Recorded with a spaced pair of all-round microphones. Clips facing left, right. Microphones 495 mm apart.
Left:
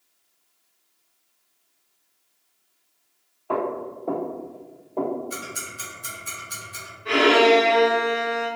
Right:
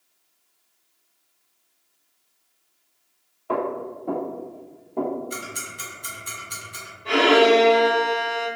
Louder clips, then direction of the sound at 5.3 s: Right 1 dB; 10° left (ahead or behind).